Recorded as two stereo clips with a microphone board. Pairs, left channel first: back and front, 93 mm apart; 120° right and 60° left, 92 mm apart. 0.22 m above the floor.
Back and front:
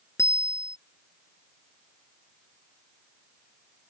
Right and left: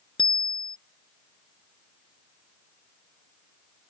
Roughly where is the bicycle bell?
Behind right.